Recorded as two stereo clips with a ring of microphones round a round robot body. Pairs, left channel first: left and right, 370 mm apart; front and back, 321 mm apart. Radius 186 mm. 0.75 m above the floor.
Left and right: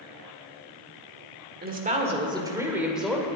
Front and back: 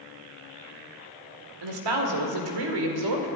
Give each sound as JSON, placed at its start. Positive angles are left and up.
{"t": 1.6, "sound": "a woman speaking", "azimuth_deg": -155, "distance_m": 1.9}